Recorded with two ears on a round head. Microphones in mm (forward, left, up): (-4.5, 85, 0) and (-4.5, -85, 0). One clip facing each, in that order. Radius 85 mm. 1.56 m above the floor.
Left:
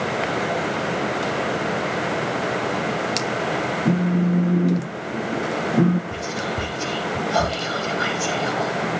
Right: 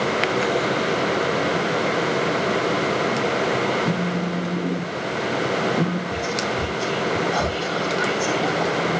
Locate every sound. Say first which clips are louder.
3.9 s a phone buzzing: left 4 dB; 35° left (ahead or behind), 1.2 m
6.1 s whispering: right 2 dB; 85° left, 4.5 m